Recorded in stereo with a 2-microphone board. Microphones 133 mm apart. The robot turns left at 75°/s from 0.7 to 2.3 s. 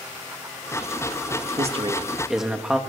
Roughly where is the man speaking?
Behind right.